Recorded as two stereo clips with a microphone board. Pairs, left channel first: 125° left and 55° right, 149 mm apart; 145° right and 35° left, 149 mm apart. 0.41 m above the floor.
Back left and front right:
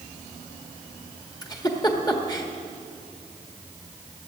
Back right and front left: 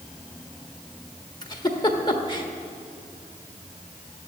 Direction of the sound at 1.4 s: 170° left.